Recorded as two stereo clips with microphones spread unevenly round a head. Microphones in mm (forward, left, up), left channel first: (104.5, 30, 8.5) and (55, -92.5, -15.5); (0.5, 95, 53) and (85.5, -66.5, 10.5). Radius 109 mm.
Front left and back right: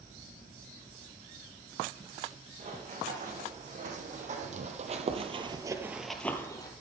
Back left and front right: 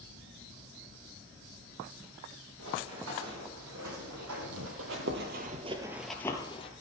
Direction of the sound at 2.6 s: 80° right.